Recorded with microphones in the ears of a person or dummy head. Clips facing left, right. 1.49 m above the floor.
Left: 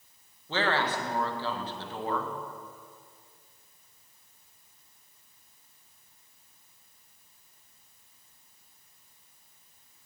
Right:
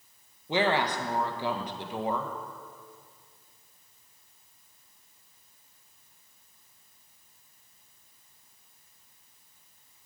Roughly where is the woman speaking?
Centre.